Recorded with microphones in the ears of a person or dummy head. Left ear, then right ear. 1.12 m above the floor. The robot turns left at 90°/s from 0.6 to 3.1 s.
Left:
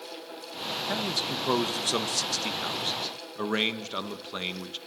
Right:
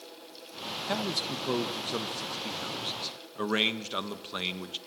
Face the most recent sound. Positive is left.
turn(degrees=-5)